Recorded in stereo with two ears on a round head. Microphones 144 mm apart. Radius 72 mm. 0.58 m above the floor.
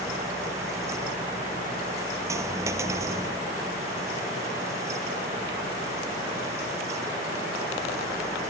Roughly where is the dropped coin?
Centre.